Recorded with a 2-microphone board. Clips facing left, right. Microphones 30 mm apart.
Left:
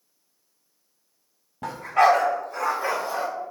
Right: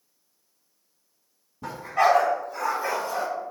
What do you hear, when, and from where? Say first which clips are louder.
1.6 s a dog barking: left 3 dB; 65° left (ahead or behind), 3 m; by 3.3 s 30° left (ahead or behind), 1.7 m